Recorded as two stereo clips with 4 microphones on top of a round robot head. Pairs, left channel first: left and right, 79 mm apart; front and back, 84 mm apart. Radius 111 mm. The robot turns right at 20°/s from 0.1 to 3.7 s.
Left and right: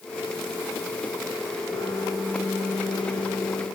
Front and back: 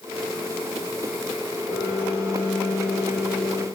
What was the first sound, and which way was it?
A piano, 45° left.